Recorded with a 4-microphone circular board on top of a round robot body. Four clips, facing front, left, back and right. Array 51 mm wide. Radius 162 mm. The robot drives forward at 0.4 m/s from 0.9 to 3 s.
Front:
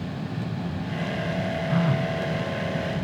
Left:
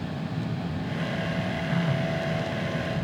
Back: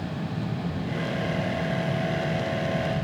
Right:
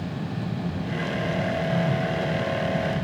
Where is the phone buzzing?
5° left.